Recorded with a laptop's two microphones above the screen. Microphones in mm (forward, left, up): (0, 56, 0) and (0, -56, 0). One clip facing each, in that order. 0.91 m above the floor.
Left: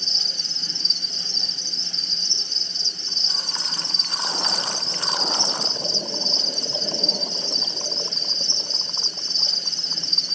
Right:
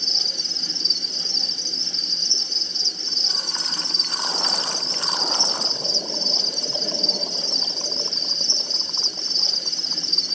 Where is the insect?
15° right (ahead or behind), 1.0 m.